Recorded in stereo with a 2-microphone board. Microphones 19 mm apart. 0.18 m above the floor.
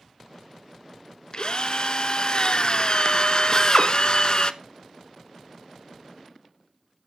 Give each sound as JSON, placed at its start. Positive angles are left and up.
{"t": 1.3, "sound": "a drill", "side_deg": 45, "distance_m": 0.8}
{"t": 3.5, "sound": "a drill", "side_deg": 25, "distance_m": 1.7}